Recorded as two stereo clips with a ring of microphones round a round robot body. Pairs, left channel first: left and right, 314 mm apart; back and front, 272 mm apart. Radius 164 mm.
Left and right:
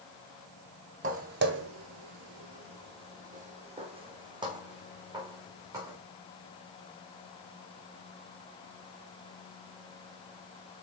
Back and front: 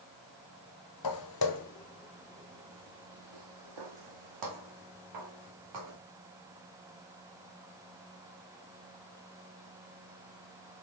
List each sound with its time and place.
1.0 s footsteps: 155° right, 1.0 m; by 6.0 s 10° right, 3 m